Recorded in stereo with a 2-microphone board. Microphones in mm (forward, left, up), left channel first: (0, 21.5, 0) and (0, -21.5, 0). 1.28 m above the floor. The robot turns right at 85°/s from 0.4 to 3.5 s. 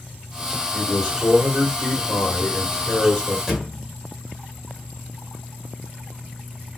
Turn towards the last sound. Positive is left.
turn(degrees=-5)  # may be behind; listen again after turning